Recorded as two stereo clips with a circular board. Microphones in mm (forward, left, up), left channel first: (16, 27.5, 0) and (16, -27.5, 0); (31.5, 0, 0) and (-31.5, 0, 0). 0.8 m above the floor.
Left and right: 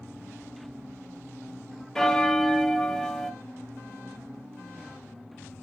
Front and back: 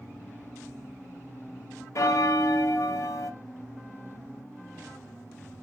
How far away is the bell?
About 0.7 m.